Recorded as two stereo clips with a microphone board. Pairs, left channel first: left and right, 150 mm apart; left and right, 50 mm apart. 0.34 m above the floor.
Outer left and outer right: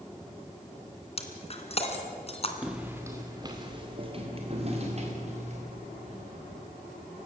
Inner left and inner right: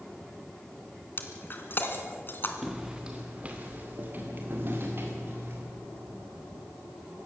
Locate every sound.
1.2 s breaking glass: 45° left (ahead or behind), 2 m
2.6 s footsteps: 5° right (ahead or behind), 2.5 m; by 5.6 s 50° right (ahead or behind), 6 m